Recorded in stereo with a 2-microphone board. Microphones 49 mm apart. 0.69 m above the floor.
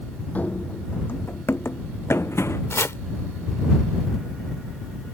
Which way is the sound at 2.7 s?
70° left (ahead or behind).